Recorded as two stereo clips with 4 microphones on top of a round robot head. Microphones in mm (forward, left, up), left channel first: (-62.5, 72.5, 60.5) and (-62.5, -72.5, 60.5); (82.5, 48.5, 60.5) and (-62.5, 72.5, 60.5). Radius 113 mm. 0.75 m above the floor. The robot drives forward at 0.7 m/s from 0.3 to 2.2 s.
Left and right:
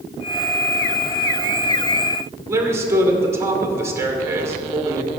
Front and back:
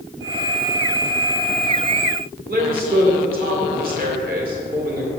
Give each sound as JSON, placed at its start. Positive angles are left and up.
{"t": 2.5, "sound": "a man speaking", "azimuth_deg": -160, "distance_m": 1.9}